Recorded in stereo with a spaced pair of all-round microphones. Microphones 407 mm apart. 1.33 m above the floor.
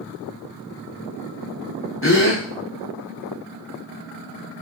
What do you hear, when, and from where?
2.0 s a gasp: 30° left (ahead or behind), 0.7 m